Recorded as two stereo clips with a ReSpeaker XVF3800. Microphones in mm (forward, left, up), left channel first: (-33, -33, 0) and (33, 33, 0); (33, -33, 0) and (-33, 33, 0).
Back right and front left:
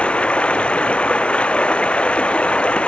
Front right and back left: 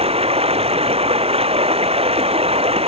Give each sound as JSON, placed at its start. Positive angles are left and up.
{"t": 0.0, "sound": "running water", "azimuth_deg": 145}